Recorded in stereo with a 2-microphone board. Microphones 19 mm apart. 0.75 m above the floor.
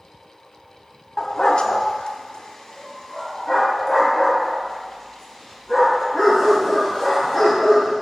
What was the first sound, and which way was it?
A dog barking, 35° left (ahead or behind).